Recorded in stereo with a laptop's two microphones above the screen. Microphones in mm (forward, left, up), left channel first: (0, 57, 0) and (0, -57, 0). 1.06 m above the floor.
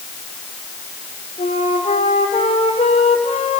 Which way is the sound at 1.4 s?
75° left (ahead or behind).